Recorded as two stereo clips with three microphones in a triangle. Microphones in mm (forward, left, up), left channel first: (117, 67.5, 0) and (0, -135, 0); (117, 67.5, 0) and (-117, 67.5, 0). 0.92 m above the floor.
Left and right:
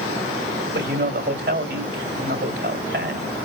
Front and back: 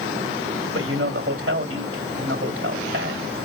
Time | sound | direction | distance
0.7 | a man speaking | 150° right | 2.5 m